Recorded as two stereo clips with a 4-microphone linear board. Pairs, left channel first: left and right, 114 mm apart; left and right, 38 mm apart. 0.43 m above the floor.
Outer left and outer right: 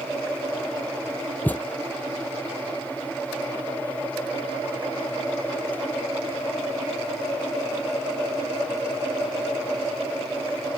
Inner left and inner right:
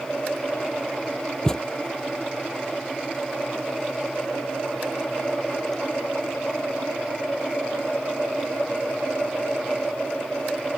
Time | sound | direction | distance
1.4 | a thud | 15° left (ahead or behind) | ?